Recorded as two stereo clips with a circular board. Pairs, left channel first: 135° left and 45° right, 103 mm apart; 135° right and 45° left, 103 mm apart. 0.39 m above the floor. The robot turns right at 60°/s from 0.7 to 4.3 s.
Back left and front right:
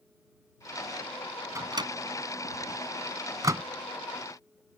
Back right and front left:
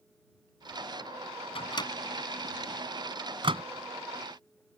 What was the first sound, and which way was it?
A microwave, 105° right.